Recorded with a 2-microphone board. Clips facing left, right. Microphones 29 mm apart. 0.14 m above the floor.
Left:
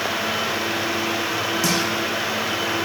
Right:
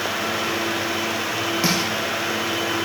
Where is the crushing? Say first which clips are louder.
Right 1 dB; 35° right (ahead or behind), 8.5 m.